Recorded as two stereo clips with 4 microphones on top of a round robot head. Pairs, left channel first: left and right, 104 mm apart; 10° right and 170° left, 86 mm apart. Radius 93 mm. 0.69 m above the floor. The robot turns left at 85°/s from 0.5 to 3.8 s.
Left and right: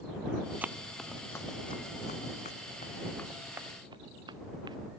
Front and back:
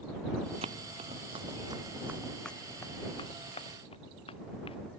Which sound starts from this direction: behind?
Running footsteps, at 0.6 s.